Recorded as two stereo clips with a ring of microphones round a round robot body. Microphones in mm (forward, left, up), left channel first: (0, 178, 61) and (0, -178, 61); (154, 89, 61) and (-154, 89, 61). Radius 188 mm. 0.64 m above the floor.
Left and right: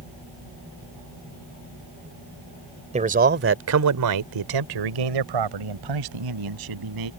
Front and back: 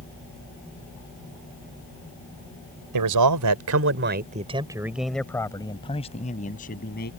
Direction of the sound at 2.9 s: 160° right.